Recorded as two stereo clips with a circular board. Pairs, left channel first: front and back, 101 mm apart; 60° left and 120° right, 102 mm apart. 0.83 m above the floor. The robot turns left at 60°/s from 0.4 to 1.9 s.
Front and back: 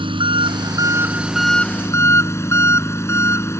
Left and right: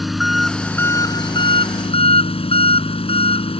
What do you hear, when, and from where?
0.0 s an engine running: 150° left; by 3.6 s 60° left